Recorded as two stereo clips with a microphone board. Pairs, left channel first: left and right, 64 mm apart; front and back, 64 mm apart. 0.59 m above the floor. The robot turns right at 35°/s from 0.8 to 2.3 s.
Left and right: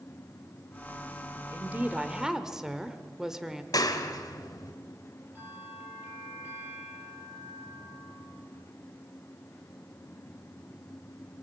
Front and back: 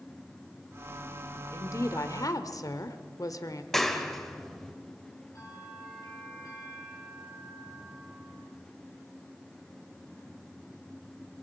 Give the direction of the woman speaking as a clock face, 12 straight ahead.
1 o'clock.